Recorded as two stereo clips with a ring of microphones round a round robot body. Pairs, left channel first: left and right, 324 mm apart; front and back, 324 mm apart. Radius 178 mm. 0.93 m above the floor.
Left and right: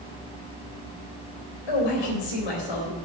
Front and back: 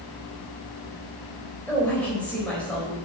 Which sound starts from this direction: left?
A woman speaking, at 1.7 s.